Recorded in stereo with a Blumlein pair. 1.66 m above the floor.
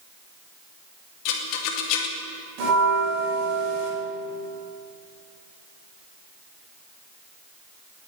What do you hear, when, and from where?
1.2 s a rattle: 40° left, 2 m
2.6 s a bell: 40° right, 5 m